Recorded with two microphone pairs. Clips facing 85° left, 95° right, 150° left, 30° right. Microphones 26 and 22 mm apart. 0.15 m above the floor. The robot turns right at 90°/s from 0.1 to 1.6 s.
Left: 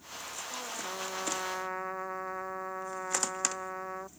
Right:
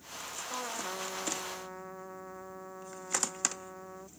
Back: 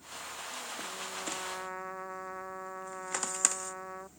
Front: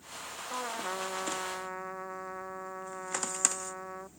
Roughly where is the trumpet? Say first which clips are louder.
Right 2 dB, front 9 dB; ahead right.